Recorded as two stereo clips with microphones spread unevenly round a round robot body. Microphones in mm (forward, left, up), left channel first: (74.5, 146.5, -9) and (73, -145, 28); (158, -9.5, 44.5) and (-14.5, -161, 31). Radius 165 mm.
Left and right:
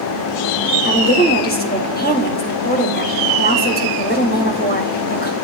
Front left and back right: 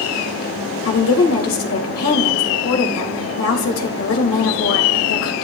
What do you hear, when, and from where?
0.8 s a woman speaking: 35° left, 3.5 m